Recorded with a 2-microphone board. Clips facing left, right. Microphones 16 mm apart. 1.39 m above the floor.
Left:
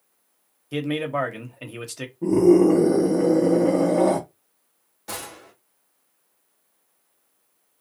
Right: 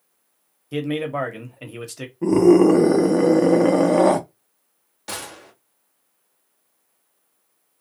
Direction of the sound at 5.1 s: 35° right (ahead or behind).